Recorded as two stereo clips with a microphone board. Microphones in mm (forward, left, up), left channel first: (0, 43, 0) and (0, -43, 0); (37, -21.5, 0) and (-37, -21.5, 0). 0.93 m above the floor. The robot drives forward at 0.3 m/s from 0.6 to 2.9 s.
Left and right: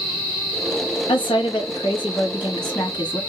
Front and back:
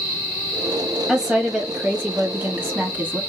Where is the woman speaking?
100° left, 1.4 m; by 3.2 s 120° left, 1.6 m.